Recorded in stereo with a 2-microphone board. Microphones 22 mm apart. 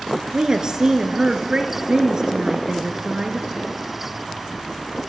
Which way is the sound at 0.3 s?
30° right (ahead or behind).